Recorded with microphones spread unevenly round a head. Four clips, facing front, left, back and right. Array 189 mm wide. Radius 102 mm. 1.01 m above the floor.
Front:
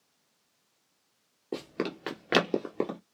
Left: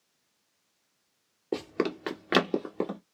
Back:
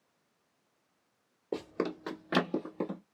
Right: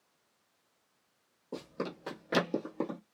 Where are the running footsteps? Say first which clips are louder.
Left 9 dB, even; 80° left, 1.2 m; by 3.0 s 15° left, 1.5 m.